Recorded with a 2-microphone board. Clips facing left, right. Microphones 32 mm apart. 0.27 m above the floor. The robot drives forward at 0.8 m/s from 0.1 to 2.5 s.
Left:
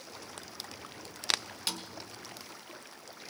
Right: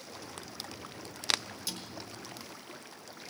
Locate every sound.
1.7 s a snare drum: 55° left (ahead or behind), 3 m